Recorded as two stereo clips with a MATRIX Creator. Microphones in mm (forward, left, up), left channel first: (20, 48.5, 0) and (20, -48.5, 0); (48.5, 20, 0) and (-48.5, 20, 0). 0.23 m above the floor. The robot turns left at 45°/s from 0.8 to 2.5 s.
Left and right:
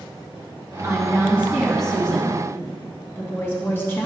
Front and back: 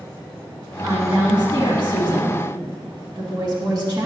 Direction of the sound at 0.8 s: 135° right.